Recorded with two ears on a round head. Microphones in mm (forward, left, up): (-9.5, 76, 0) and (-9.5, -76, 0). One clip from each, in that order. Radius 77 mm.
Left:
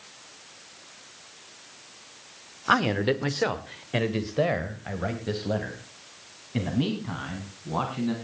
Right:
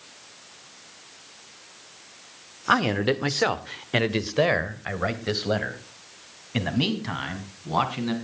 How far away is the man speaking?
About 0.8 m.